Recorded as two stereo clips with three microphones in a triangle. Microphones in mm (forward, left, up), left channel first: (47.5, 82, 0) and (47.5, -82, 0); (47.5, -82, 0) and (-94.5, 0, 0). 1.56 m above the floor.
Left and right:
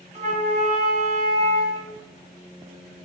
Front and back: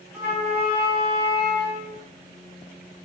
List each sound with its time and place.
0.1 s a flute: 130° right, 1.8 m